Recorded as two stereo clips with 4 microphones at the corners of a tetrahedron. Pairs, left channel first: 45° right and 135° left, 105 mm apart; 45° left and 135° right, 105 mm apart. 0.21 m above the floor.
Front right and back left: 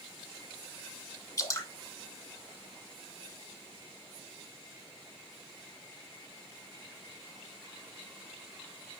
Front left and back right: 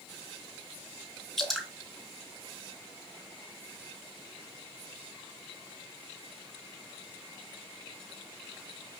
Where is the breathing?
No breathing in this recording.